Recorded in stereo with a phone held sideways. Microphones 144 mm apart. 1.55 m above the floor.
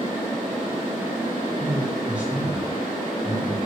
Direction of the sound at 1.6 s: 10° right (ahead or behind).